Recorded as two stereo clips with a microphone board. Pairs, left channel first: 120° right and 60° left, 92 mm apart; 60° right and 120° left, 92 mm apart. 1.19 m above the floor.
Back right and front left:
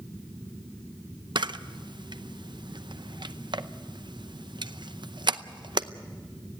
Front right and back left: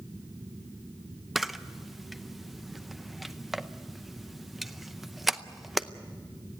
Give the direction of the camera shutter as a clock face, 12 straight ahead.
11 o'clock.